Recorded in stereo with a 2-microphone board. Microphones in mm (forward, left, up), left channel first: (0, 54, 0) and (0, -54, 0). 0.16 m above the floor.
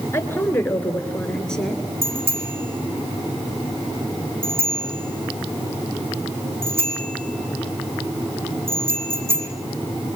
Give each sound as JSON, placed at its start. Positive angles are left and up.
{"t": 0.1, "sound": "a woman speaking", "side_deg": 25, "distance_m": 2.5}
{"t": 2.0, "sound": "a bicycle bell", "side_deg": -60, "distance_m": 6.0}